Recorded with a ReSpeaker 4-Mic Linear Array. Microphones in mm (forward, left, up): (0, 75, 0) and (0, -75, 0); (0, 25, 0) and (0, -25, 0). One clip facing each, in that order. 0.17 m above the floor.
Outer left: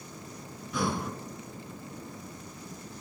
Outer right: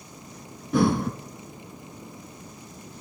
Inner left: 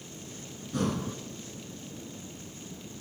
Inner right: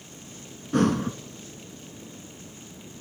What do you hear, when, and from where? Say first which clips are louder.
0.7 s breathing: outer right 9 dB, inner right 8 dB; 60° right (ahead or behind), 0.6 m